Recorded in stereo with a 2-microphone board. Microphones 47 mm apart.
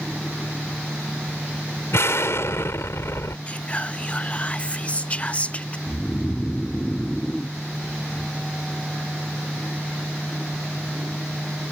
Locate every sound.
1.9 s an explosion: 70° left (ahead or behind)
3.5 s whispering: 25° left (ahead or behind)
5.9 s snoring: 5° left (ahead or behind)